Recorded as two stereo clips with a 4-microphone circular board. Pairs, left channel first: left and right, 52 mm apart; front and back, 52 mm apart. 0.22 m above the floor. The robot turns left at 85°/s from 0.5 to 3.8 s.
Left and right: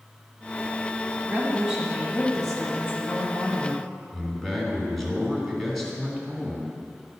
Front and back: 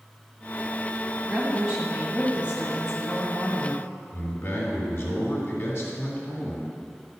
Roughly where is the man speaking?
Ahead.